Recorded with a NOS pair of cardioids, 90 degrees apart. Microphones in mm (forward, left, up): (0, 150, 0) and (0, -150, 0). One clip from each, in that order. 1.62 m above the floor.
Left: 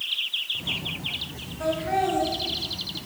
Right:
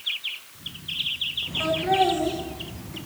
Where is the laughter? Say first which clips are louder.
Right 2 dB; 45° right, 2.5 m; by 3.1 s 40° right, 1.8 m.